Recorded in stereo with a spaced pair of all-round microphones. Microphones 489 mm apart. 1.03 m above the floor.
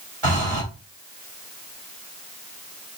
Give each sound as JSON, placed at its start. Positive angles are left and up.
{"t": 0.2, "sound": "breathing", "side_deg": -80, "distance_m": 3.0}